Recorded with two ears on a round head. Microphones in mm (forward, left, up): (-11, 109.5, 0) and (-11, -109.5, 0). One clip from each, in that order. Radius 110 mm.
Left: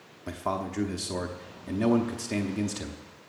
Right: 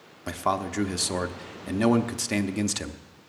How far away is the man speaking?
About 0.7 m.